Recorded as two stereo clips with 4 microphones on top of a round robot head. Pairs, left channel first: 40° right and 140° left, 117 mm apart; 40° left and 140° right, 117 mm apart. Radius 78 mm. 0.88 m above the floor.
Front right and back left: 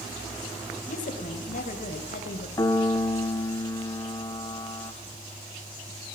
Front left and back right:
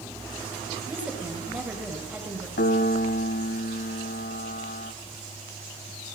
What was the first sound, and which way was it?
A woman speaking, 60° right.